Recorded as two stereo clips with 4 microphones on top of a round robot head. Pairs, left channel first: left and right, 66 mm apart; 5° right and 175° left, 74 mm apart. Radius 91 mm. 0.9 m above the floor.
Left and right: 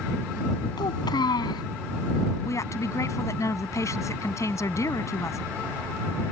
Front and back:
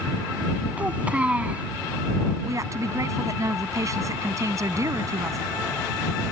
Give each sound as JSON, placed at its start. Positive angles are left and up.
{"t": 0.8, "sound": "a child speaking", "azimuth_deg": 100}
{"t": 2.5, "sound": "a woman speaking", "azimuth_deg": 130}